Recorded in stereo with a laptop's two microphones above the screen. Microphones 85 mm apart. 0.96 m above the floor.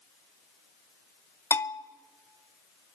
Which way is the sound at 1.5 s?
35° left (ahead or behind).